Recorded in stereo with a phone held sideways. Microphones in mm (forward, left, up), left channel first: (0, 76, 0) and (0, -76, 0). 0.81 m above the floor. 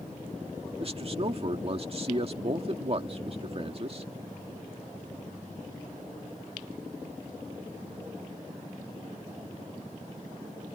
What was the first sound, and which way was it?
A man speaking, 45° right (ahead or behind).